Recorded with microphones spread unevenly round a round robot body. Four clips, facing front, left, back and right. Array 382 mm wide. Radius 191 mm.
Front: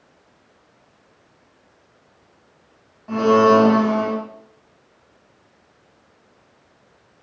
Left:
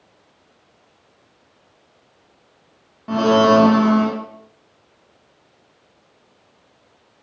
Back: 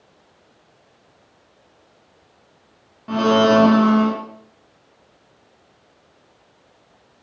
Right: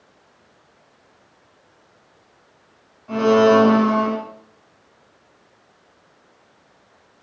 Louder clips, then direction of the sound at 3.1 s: Even, front 1 dB; 110° left.